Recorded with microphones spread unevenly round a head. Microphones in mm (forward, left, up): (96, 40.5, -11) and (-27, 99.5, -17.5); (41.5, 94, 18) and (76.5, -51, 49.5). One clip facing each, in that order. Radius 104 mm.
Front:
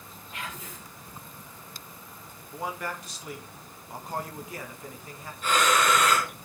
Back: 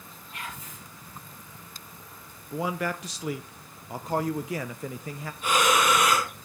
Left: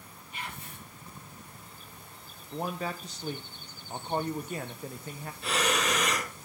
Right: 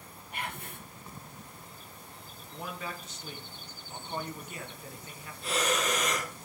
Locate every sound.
0.3 s whispering: 45° right, 1.6 m
2.5 s a man speaking: 175° left, 0.8 m
5.4 s breathing: 80° left, 3.5 m